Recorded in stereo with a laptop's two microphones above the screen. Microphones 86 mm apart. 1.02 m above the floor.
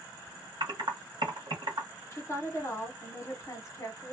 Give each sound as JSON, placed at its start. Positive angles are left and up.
{"t": 0.6, "sound": "typing on a keyboard", "side_deg": -60, "distance_m": 1.1}
{"t": 2.1, "sound": "a woman speaking", "side_deg": 35, "distance_m": 0.8}